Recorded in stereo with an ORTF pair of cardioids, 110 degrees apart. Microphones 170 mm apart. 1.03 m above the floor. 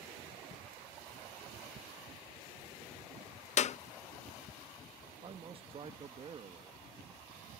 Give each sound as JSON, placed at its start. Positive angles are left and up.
{"t": 3.6, "sound": "a clap", "azimuth_deg": 45}
{"t": 5.2, "sound": "a man speaking", "azimuth_deg": -35}